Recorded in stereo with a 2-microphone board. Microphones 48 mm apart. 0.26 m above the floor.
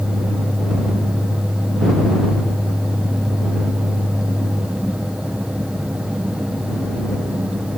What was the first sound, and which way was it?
Only background noise.